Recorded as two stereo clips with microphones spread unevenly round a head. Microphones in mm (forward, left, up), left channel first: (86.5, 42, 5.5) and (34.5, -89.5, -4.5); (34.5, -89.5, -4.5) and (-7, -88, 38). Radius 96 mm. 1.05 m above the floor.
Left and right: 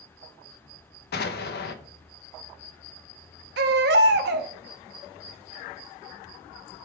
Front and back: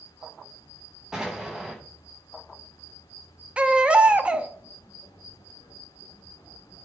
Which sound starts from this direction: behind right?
A baby crying, at 3.6 s.